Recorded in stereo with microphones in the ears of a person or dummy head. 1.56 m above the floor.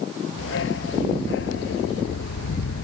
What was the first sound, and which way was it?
A dog barking, 85° left.